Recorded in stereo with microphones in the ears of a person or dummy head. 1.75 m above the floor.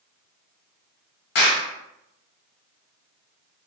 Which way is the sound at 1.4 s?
55° left (ahead or behind).